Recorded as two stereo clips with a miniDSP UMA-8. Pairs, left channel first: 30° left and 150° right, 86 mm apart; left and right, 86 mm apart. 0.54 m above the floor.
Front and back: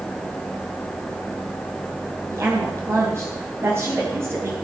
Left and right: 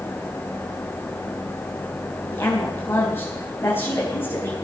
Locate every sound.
2.3 s a woman speaking: 150° left, 4 m